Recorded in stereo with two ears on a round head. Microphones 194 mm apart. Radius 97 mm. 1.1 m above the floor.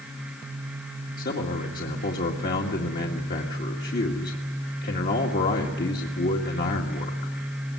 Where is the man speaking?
45° left (ahead or behind), 1.9 m.